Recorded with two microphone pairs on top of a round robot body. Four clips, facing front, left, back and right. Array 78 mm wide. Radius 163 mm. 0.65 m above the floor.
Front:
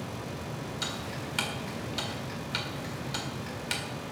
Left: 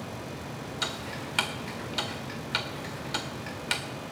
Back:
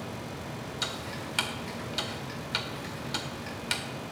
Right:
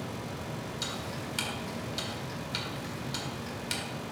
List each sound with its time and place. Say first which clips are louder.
0.8 s ticking: left 2 dB, even; 90° left, 1.9 m